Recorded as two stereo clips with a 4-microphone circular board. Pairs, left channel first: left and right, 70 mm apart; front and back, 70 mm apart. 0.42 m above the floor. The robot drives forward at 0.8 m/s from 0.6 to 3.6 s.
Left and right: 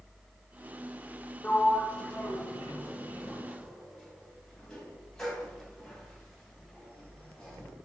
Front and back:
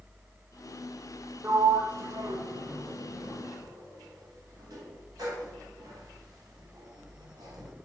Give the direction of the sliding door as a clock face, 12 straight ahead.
7 o'clock.